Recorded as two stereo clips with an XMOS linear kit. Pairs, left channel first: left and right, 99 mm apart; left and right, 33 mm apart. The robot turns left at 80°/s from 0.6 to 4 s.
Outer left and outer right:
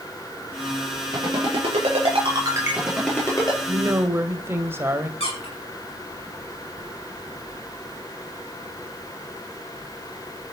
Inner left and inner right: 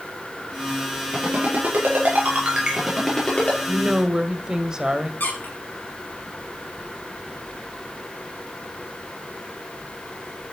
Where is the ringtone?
35° right (ahead or behind), 6.5 m; by 3.6 s 50° left (ahead or behind), 6.5 m.